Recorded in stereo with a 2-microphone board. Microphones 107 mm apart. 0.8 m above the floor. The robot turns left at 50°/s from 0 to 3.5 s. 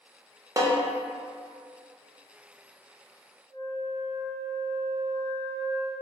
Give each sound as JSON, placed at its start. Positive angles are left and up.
{"t": 0.6, "sound": "a snare drum", "side_deg": -30, "distance_m": 0.6}
{"t": 3.5, "sound": "a flute", "side_deg": -15, "distance_m": 1.1}